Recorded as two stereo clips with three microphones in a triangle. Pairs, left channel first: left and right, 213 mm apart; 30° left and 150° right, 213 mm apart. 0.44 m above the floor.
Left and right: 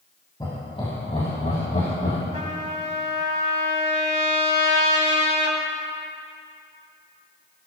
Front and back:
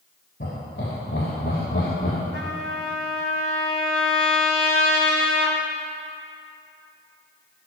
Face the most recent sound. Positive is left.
turn(degrees=-145)